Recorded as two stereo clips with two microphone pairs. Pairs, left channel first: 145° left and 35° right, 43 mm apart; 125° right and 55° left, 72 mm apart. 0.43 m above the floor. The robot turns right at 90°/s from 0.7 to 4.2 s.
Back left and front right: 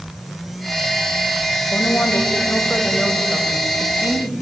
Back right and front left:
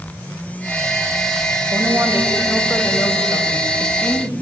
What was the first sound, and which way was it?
A woman speaking, 90° left.